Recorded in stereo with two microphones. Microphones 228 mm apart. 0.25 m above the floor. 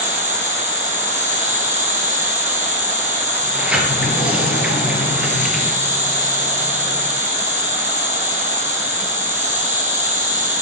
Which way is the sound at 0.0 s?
30° right (ahead or behind).